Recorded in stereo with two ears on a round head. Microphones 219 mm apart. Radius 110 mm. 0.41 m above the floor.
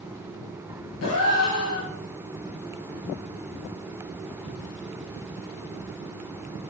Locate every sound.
1.0 s a gasp: 65° left (ahead or behind), 3 m